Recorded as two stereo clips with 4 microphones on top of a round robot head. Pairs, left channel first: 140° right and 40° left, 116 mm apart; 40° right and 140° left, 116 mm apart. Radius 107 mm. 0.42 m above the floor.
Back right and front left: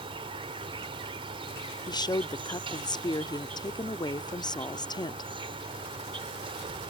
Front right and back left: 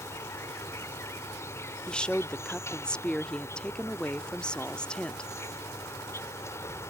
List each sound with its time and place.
0.0 s an insect: 20° left
1.9 s a woman speaking: 120° right